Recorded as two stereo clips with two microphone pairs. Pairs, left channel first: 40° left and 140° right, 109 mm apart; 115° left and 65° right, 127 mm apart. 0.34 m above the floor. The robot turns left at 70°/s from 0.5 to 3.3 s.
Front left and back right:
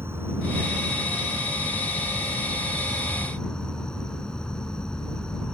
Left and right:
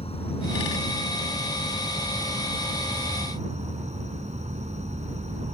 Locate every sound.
0.0 s an insect: 150° left; by 5.5 s 45° right